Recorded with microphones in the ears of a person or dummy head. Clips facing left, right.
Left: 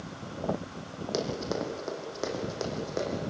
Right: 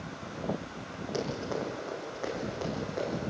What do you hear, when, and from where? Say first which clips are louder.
1.1 s running footsteps: left 2 dB; 55° left (ahead or behind), 4.5 m; by 3.2 s 60° left (ahead or behind), 6.5 m